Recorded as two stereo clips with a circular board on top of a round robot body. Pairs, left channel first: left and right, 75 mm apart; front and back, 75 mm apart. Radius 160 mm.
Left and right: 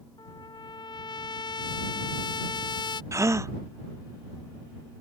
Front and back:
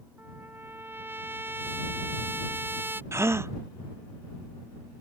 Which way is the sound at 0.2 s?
115° left.